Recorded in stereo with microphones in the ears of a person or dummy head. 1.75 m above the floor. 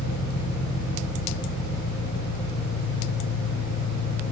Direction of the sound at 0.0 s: 55° left (ahead or behind).